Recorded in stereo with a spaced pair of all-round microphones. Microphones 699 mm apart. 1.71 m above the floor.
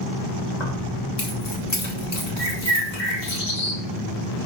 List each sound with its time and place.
0.6 s keys jangling: 75° left (ahead or behind), 2.5 m
2.4 s a bird: 55° left (ahead or behind), 1.9 m